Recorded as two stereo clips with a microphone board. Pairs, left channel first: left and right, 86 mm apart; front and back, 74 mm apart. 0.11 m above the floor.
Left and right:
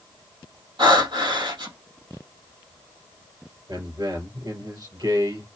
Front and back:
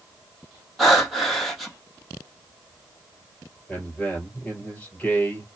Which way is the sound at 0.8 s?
90° right.